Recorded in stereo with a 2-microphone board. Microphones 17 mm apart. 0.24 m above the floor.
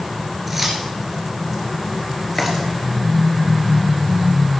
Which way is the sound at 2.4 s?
30° left (ahead or behind).